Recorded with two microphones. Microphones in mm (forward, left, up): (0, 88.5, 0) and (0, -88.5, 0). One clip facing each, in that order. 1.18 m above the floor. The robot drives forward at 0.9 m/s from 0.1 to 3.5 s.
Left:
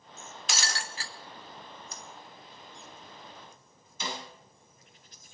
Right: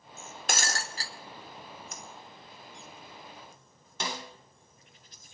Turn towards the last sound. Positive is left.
turn(degrees=-90)